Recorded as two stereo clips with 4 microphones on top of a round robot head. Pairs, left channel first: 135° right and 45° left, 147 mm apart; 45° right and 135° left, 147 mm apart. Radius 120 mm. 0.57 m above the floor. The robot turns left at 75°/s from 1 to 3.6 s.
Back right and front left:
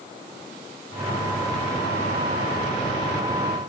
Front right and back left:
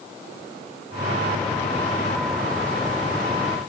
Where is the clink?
I don't hear a clink.